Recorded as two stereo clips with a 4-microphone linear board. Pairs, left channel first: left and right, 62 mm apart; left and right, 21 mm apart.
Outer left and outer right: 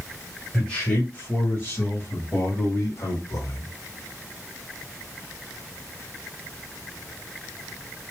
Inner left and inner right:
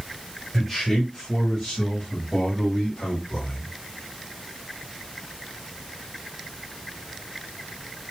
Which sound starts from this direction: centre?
A man speaking, at 0.5 s.